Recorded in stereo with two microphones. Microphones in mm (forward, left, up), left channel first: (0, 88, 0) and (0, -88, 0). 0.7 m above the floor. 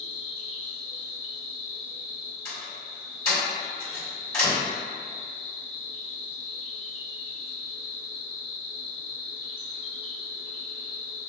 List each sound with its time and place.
0.0 s an insect: 30° left (ahead or behind), 0.8 m
2.5 s a door slam: 15° left (ahead or behind), 1.5 m